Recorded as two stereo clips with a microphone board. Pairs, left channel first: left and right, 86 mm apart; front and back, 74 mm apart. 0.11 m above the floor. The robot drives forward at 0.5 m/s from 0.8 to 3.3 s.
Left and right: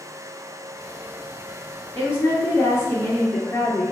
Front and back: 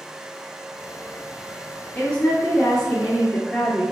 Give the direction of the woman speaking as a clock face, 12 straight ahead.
10 o'clock.